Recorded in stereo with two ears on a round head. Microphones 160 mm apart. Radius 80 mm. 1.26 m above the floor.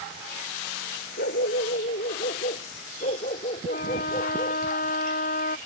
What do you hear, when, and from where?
1.2 s a dog barking: 55° left (ahead or behind); by 4.6 s 30° left (ahead or behind)
3.7 s a trumpet: 45° left (ahead or behind)